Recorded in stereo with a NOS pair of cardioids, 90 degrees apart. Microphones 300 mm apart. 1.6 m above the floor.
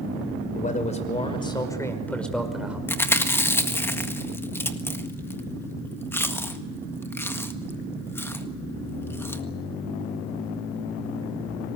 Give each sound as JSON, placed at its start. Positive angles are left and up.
{"t": 0.6, "sound": "a man speaking", "azimuth_deg": 25, "distance_m": 5.5}
{"t": 2.9, "sound": "chewing", "azimuth_deg": 10, "distance_m": 1.7}